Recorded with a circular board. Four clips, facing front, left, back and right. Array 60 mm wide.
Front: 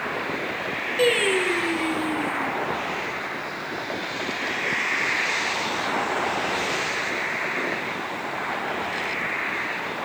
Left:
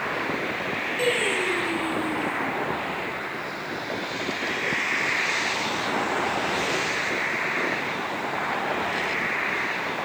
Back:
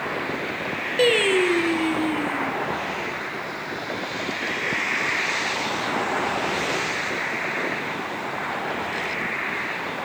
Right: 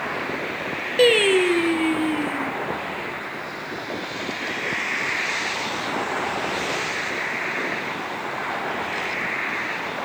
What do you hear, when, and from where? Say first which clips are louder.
1.0 s singing: right 9 dB, back 2 dB; 105° right, 0.7 m